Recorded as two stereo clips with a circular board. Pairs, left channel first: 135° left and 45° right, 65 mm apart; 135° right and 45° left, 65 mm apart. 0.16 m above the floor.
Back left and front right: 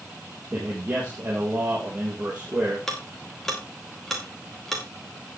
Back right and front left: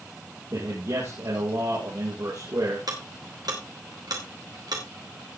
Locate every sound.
0.5 s a man speaking: 25° left, 5 m
2.9 s ticking: 50° left, 4 m